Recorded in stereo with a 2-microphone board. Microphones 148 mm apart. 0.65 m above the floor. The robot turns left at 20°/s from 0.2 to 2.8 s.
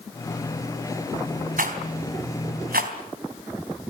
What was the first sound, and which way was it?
A rattle, 70° right (ahead or behind).